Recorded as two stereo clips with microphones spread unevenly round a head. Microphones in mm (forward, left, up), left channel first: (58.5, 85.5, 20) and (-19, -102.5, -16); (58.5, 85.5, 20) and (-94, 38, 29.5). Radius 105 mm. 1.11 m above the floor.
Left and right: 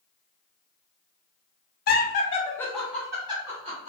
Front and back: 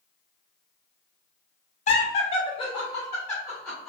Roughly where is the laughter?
Ahead left.